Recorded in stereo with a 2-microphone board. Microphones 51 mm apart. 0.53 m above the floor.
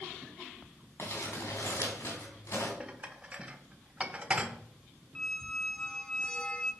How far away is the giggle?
No giggle in this recording.